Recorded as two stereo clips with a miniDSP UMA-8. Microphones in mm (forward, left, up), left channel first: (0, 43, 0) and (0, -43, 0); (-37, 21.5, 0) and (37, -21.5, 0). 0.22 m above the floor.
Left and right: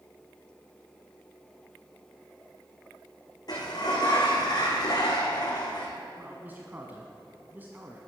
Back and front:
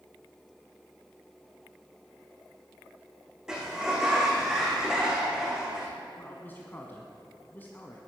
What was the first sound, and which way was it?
A sliding door, 50° left.